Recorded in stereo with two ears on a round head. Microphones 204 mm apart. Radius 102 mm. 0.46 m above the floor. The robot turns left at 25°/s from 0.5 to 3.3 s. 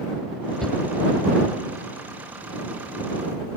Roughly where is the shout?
Centre.